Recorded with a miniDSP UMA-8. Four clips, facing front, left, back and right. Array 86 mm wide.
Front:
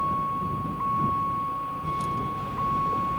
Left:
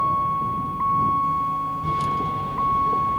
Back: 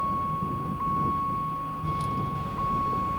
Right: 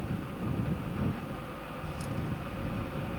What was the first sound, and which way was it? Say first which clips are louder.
A vehicle: left 16 dB, front 1 dB; 85° left.